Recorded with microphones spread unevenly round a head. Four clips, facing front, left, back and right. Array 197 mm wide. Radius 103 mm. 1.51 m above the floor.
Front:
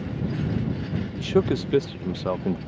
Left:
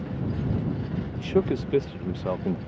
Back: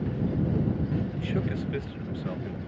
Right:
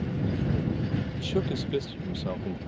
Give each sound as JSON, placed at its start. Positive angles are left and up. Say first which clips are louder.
{"t": 1.2, "sound": "a man speaking", "louder": "left 8 dB, front 8 dB", "azimuth_deg": 25}